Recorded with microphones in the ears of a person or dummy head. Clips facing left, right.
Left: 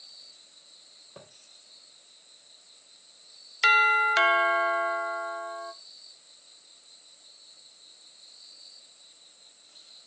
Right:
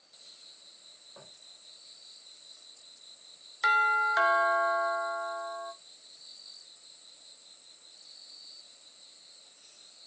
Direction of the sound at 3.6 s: 35° left (ahead or behind).